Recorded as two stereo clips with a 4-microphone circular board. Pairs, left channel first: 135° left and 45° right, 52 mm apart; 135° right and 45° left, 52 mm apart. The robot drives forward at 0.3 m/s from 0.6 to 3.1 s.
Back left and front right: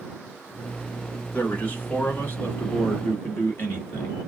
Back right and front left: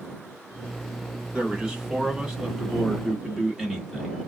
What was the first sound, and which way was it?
A man speaking, 100° left.